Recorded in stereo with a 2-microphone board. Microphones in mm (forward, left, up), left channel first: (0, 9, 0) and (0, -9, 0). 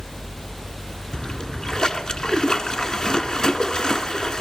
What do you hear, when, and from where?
1.1 s a splash: 40° left (ahead or behind), 0.7 m